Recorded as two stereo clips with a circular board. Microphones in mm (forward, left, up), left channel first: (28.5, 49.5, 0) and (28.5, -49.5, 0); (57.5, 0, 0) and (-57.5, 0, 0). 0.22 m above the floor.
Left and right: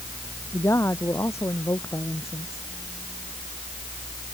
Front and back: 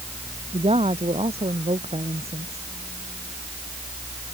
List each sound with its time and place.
0.5 s a woman speaking: 155° left